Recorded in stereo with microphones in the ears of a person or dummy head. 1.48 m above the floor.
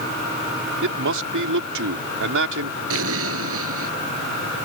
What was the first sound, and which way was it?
A man speaking, 65° right (ahead or behind).